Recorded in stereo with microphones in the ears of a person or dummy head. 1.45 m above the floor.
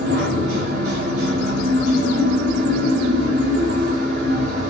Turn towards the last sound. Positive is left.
turn(degrees=-50)  # may be behind; listen again after turning